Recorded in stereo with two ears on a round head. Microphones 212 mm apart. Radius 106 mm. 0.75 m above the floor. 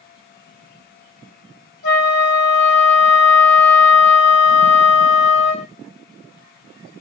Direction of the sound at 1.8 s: 70° left (ahead or behind).